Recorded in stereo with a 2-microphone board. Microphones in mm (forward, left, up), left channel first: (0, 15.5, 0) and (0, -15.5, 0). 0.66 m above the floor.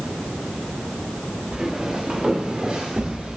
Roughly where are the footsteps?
Centre.